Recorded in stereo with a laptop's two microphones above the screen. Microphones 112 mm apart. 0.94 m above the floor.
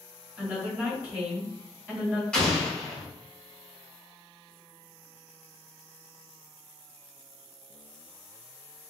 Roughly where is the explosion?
Centre.